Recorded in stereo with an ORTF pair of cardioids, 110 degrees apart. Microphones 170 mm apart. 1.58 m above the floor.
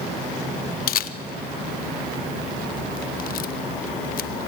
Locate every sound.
0.9 s a camera shutter: 60° left, 1.2 m